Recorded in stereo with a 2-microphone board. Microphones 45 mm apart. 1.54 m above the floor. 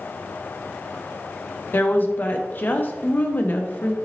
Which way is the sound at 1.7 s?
45° left (ahead or behind).